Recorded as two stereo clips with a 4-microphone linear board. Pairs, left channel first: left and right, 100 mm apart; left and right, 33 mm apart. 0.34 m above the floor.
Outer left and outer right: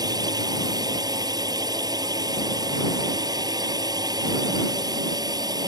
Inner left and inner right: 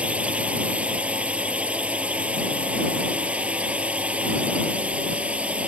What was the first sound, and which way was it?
A drone, 40° right (ahead or behind).